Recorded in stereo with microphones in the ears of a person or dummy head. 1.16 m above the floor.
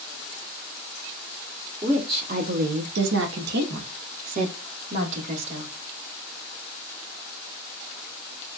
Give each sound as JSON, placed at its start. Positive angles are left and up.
{"t": 1.8, "sound": "a woman speaking", "side_deg": -20, "distance_m": 0.7}